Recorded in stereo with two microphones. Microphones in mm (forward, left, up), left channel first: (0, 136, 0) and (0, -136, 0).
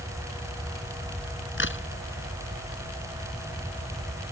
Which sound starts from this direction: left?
A crack, at 1.6 s.